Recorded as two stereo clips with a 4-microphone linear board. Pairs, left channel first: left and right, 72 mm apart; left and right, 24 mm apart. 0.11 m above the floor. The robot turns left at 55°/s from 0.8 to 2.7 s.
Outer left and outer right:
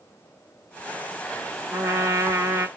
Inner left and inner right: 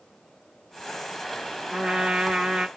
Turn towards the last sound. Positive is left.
turn(degrees=-130)